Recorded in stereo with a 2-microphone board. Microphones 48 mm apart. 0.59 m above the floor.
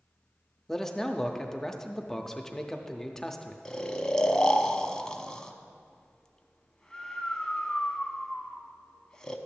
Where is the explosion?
I don't hear an explosion.